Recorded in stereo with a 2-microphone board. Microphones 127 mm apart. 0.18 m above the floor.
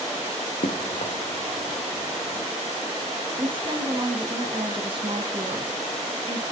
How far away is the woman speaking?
About 1.5 m.